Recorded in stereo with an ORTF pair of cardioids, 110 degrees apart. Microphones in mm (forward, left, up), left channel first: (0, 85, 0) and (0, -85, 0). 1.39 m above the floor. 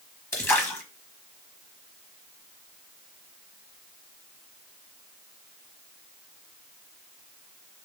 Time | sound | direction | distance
0.3 | a splash | 15° left | 1.3 m